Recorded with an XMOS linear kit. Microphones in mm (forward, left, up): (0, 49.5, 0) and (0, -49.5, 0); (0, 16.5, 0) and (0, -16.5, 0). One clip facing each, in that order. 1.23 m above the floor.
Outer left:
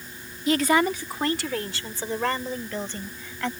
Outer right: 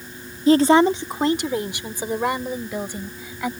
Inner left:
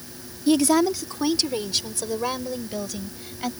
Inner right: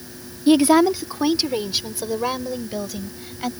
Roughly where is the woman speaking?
Right.